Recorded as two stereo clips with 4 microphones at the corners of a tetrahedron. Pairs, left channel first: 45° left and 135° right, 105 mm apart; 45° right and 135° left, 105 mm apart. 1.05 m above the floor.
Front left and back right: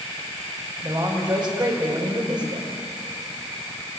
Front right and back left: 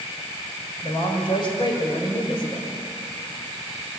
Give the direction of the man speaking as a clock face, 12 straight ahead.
3 o'clock.